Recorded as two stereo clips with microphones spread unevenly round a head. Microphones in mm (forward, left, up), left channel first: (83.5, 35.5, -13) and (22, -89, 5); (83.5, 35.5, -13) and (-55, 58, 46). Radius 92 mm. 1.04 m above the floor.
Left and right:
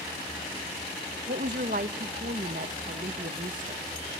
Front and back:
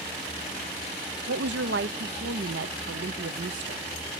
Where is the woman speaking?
165° right, 0.9 m.